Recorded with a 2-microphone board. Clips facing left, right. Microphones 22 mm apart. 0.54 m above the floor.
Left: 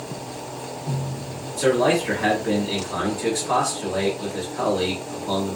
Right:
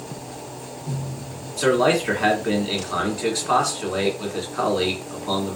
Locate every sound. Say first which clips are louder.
1.6 s a man speaking: right 1 dB; 35° right (ahead or behind), 1.6 m